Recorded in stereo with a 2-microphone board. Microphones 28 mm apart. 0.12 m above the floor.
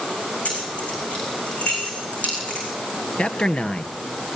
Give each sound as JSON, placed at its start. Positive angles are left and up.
{"t": 0.5, "sound": "keys jangling", "side_deg": 60, "distance_m": 6.0}
{"t": 3.2, "sound": "a man speaking", "side_deg": 40, "distance_m": 1.7}